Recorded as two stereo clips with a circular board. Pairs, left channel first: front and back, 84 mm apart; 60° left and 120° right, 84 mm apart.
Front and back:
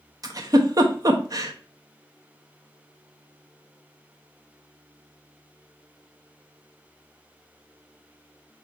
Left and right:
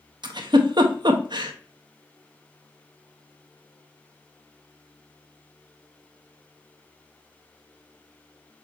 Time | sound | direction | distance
0.2 | a giggle | 140° right | 0.6 m